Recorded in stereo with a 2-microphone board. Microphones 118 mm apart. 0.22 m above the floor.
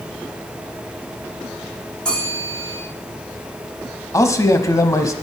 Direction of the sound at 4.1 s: 25° left (ahead or behind).